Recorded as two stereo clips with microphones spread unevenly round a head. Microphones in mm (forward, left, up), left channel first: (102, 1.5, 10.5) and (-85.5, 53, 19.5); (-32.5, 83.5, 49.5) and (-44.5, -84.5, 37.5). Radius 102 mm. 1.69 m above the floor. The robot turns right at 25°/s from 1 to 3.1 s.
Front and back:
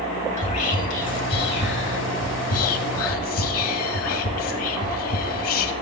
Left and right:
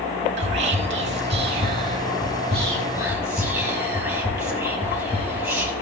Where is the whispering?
70° right, 1.5 m; by 5.7 s 20° right, 1.5 m.